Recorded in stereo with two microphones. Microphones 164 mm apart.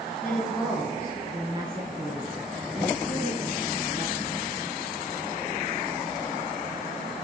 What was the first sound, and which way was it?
A woman speaking, 10° left (ahead or behind).